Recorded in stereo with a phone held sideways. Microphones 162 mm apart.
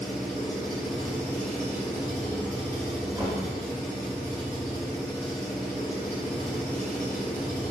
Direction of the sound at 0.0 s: 20° left (ahead or behind).